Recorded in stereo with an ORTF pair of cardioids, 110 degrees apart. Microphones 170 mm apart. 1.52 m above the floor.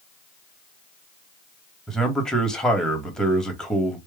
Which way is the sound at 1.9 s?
5° left.